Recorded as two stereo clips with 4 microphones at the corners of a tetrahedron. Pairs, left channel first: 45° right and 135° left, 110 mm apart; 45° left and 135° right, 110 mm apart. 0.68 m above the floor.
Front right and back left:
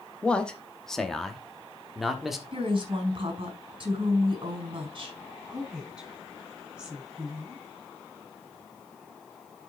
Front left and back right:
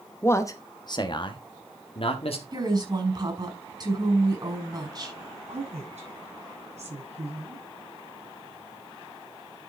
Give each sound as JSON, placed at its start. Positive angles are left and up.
{"t": 0.2, "sound": "a man speaking", "azimuth_deg": 20, "distance_m": 0.9}
{"t": 2.5, "sound": "a woman speaking", "azimuth_deg": 175, "distance_m": 5.0}
{"t": 5.5, "sound": "a woman speaking", "azimuth_deg": -145, "distance_m": 7.5}